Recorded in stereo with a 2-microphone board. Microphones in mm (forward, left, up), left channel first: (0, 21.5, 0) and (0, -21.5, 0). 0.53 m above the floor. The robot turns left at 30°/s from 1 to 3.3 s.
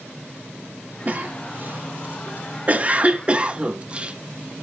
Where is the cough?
30° right (ahead or behind), 0.9 m; by 4.2 s 25° right (ahead or behind), 0.9 m.